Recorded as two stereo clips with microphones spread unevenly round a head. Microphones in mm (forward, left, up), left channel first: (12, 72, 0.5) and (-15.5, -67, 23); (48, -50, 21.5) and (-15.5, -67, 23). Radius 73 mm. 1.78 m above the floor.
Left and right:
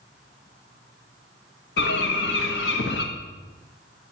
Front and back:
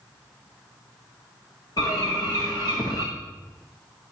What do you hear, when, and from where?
1.8 s a bird: 75° left, 1.5 m